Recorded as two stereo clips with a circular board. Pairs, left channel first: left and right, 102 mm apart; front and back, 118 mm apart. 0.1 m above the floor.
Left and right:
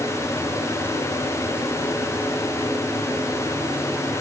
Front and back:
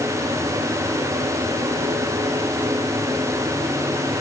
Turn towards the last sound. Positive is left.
No sound to turn to.